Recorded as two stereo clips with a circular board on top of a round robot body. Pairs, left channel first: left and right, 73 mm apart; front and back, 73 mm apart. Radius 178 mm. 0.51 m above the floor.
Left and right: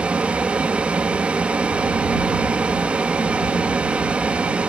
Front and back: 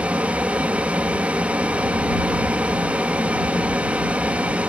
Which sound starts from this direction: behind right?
An aircraft, at 0.0 s.